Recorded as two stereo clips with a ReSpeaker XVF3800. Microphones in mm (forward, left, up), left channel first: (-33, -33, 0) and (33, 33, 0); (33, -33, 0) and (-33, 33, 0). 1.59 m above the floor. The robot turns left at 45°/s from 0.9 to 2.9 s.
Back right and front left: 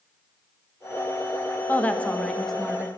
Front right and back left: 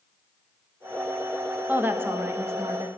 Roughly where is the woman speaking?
Behind.